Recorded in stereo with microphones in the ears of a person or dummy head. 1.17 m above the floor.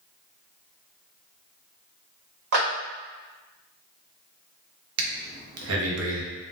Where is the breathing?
85° right, 0.6 m.